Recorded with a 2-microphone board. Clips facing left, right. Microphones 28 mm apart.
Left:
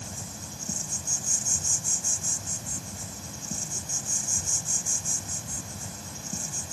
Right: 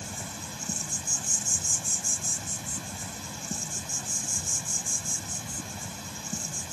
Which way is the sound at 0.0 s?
35° right (ahead or behind).